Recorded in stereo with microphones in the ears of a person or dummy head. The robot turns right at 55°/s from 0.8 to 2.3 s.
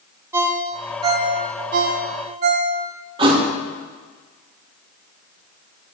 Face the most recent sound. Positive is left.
turn(degrees=-30)  # may be behind; listen again after turning